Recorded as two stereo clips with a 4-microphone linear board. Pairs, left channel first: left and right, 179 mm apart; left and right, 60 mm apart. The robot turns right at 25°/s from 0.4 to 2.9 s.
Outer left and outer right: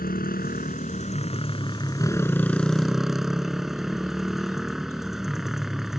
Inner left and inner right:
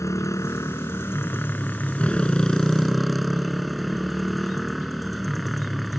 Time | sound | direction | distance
0.0 | a motorcycle | 120° left | ?